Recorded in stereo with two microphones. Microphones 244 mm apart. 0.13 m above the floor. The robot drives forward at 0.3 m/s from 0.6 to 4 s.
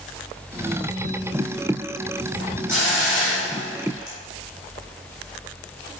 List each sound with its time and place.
2.7 s a hiss: 50° left (ahead or behind), 1.9 m; by 4.2 s 60° left (ahead or behind), 1.7 m